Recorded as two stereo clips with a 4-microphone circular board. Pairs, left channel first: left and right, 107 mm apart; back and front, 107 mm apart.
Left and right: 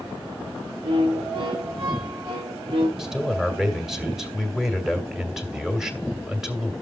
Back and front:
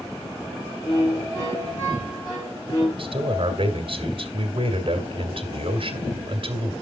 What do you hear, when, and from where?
0.8 s a violin: 125° right, 8.5 m
3.0 s a man speaking: 5° right, 2 m